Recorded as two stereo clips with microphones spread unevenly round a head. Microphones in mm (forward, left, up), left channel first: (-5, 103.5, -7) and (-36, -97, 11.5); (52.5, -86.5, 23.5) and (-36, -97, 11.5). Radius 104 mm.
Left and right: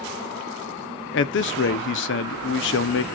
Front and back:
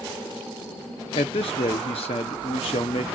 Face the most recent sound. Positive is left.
turn(degrees=50)